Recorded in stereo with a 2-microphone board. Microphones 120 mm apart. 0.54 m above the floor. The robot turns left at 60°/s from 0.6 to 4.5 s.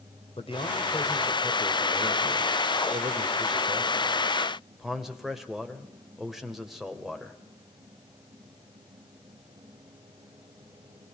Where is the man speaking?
55° left, 2 m; by 7.4 s 175° right, 2 m.